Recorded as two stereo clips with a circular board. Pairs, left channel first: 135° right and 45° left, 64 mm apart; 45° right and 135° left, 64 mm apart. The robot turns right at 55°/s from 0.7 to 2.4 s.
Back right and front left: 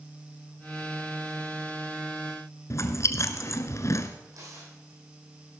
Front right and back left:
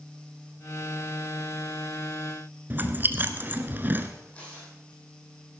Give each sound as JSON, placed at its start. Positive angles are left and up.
{"t": 2.7, "sound": "chewing", "azimuth_deg": -170, "distance_m": 1.1}
{"t": 4.2, "sound": "tearing paper", "azimuth_deg": 25, "distance_m": 8.0}